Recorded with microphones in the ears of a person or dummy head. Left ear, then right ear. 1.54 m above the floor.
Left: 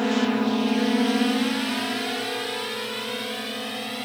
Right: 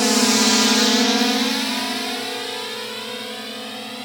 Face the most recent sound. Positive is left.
turn(degrees=0)  # may be behind; listen again after turning